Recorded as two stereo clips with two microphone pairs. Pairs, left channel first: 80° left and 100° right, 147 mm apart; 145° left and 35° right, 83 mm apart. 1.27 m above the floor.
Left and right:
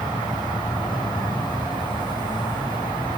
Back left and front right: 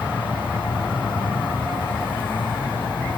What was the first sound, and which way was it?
An insect, 140° left.